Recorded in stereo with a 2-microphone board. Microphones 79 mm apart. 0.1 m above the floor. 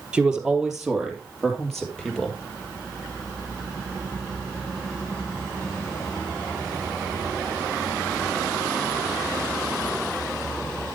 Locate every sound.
0.1 s a man speaking: 10° right (ahead or behind), 3 m; by 2.4 s 10° left (ahead or behind), 3.5 m